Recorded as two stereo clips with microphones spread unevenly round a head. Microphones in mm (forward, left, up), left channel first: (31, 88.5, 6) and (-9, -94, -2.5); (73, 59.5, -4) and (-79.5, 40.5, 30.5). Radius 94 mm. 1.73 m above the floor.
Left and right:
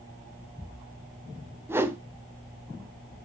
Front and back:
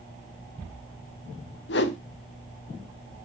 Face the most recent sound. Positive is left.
turn(degrees=-25)